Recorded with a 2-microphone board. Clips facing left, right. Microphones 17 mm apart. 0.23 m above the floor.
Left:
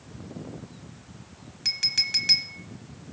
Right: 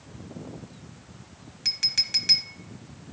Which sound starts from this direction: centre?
A clink, at 1.6 s.